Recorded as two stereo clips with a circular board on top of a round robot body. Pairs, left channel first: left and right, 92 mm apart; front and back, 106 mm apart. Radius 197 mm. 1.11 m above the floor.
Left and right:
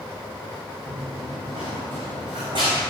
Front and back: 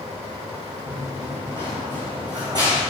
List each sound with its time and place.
0.9 s running footsteps: 135° right, 5 m; by 2.8 s 125° right, 5.5 m